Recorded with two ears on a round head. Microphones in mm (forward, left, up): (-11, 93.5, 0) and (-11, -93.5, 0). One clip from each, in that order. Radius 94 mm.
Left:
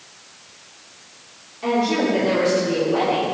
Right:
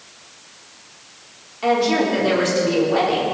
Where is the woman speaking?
45° right (ahead or behind), 4 m.